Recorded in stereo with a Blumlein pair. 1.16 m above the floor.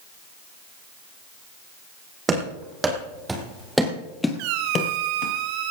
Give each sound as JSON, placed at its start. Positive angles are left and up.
{"t": 2.3, "sound": "running footsteps", "azimuth_deg": -15, "distance_m": 3.5}
{"t": 4.4, "sound": "a squeak", "azimuth_deg": -45, "distance_m": 1.7}